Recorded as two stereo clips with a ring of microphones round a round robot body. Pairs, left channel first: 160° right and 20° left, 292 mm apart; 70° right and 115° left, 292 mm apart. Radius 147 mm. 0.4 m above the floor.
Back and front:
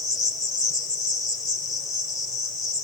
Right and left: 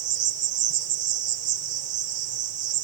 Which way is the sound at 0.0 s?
125° left.